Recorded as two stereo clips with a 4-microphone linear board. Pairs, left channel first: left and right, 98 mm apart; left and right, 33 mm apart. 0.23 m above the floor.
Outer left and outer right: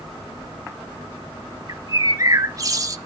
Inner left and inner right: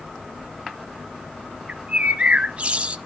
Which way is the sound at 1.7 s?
35° right (ahead or behind).